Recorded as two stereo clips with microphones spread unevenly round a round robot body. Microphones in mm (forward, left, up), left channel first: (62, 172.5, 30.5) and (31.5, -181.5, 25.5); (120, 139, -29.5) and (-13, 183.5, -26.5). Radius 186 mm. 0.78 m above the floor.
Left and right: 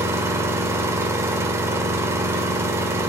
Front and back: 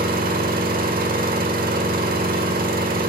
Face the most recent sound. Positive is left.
turn(degrees=180)